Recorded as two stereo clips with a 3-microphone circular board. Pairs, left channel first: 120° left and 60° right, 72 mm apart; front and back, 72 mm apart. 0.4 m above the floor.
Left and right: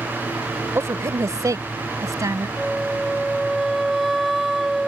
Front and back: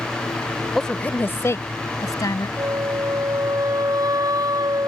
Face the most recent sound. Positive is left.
turn(degrees=-150)